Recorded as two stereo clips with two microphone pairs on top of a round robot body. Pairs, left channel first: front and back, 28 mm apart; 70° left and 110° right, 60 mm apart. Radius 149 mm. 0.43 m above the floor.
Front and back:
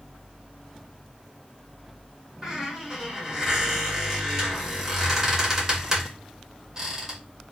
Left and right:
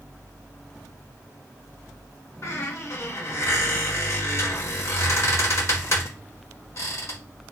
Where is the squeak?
115° left, 2 m.